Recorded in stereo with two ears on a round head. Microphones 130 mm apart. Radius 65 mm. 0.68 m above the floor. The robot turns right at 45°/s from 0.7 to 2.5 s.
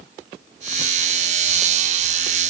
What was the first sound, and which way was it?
Only background noise.